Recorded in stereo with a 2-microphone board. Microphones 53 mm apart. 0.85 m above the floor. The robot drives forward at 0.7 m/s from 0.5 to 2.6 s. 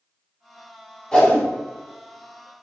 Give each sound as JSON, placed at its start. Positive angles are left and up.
{"t": 1.1, "sound": "a whoosh", "side_deg": 10, "distance_m": 1.1}